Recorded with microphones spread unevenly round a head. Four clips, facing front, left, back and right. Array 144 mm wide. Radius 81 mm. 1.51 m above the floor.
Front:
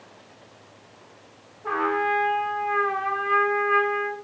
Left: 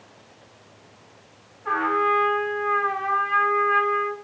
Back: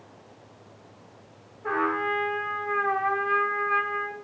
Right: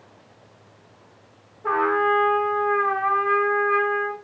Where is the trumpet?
90° right, 8 m.